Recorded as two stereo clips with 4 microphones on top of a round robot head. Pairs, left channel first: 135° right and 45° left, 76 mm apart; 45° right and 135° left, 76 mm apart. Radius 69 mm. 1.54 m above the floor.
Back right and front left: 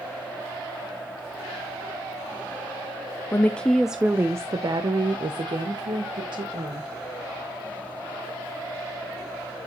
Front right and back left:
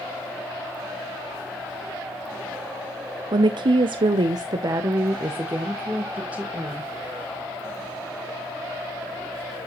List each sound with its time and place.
3.3 s a woman speaking: 160° left, 0.6 m; by 6.9 s 55° left, 1.6 m